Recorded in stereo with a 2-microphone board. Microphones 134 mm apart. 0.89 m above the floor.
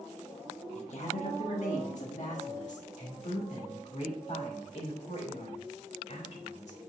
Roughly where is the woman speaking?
Left.